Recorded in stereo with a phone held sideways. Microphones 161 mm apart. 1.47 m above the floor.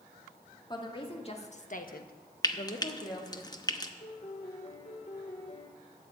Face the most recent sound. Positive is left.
turn(degrees=45)  # may be behind; listen again after turning